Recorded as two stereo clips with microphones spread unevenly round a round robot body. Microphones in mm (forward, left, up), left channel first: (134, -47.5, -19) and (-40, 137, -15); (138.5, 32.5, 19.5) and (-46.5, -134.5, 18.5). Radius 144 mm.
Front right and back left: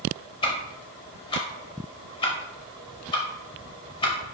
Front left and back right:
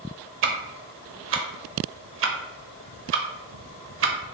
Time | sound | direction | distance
0.4 | ticking | 115° right | 0.6 m